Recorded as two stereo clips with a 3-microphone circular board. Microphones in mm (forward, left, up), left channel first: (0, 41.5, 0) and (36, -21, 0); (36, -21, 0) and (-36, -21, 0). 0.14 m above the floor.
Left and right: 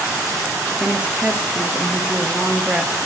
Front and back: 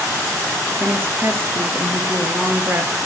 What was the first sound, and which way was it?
A woman speaking, 130° right.